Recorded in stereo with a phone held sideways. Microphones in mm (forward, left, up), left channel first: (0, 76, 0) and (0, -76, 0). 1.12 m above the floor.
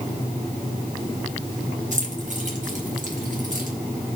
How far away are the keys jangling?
About 4 m.